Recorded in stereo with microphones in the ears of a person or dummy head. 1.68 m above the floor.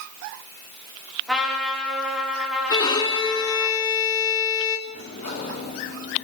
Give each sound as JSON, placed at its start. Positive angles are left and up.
{"t": 1.3, "sound": "a trumpet", "side_deg": 0, "distance_m": 4.5}
{"t": 2.7, "sound": "a violin", "side_deg": 25, "distance_m": 3.0}
{"t": 4.9, "sound": "a sliding door", "side_deg": 40, "distance_m": 6.0}